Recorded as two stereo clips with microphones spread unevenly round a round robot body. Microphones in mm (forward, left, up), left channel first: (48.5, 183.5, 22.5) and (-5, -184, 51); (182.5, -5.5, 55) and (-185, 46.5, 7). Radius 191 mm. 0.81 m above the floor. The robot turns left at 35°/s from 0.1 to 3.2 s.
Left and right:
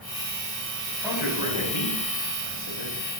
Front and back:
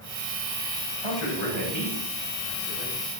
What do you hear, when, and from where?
0.9 s a man speaking: 5° right, 4.5 m; by 3.0 s 75° right, 4.5 m